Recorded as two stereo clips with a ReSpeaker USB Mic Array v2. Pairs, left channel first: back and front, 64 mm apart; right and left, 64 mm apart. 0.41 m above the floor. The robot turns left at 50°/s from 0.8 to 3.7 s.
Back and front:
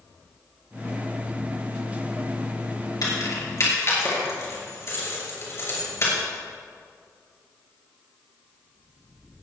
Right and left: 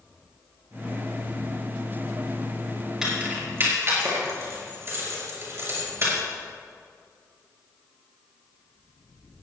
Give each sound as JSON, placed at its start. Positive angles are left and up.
{"t": 3.0, "sound": "keys jangling", "azimuth_deg": 170, "distance_m": 5.0}